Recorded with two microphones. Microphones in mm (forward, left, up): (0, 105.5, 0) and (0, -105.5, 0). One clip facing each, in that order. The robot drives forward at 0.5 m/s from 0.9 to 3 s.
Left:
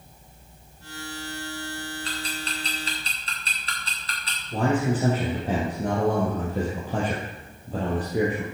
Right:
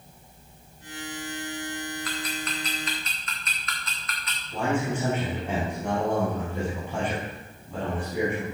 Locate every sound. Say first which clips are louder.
2.0 s ticking: right 1 dB; 30° left (ahead or behind), 4 m; by 4.4 s 35° left (ahead or behind), 3.5 m
4.5 s a man speaking: left 3 dB; 35° left (ahead or behind), 3.5 m